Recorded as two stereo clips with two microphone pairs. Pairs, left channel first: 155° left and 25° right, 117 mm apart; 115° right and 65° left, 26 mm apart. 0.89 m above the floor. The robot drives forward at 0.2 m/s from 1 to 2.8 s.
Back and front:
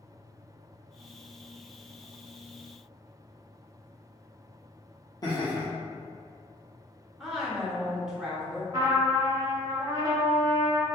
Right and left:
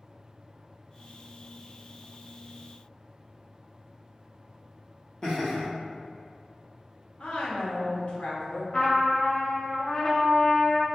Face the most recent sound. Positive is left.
turn(degrees=-80)